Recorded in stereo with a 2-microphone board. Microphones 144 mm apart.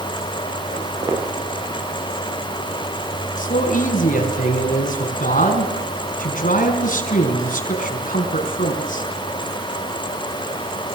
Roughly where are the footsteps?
Right.